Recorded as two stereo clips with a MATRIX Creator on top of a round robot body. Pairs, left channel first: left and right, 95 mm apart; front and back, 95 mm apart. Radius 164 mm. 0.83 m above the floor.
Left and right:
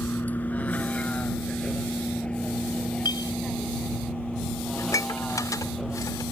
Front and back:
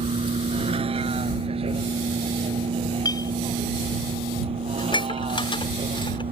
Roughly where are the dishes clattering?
Ahead left.